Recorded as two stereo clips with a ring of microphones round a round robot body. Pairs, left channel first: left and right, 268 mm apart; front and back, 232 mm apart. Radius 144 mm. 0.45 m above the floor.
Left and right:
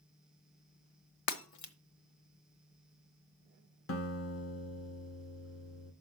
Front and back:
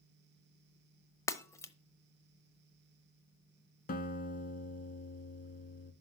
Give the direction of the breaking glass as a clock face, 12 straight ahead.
9 o'clock.